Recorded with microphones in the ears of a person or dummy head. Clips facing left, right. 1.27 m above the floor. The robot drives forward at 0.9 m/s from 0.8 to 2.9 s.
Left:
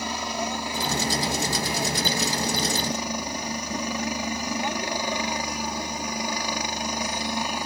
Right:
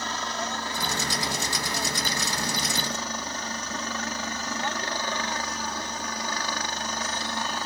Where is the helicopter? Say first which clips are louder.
Left 3 dB; 10° left (ahead or behind); by 7.7 s 15° left (ahead or behind).